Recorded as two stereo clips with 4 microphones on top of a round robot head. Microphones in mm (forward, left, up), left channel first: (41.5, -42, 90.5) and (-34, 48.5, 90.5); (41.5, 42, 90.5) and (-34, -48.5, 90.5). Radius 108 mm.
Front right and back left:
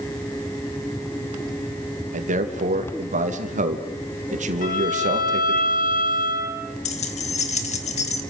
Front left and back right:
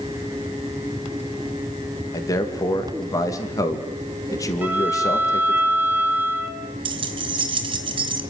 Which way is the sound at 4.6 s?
55° right.